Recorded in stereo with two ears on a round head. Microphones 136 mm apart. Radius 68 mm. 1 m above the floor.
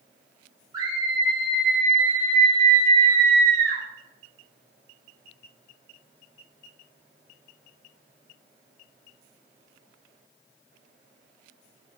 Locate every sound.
0.7 s a scream: 25° right (ahead or behind), 3 m; by 3.8 s 65° right (ahead or behind), 1.9 m